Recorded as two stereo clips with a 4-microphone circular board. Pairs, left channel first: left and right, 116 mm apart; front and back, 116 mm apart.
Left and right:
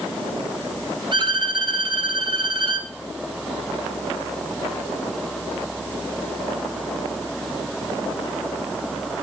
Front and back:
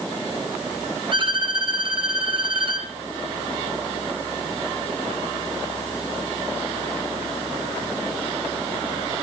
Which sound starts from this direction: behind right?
A violin, at 1.1 s.